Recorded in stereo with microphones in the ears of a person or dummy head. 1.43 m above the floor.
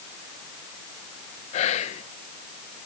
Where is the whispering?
40° left (ahead or behind), 0.7 m.